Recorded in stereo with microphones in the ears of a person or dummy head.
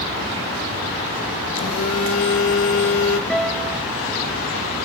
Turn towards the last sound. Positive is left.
turn(degrees=5)  # may be behind; listen again after turning